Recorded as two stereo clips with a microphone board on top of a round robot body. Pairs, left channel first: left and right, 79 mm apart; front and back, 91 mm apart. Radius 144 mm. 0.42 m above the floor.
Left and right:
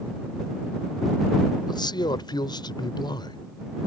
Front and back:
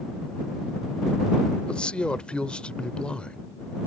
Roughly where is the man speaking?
Left.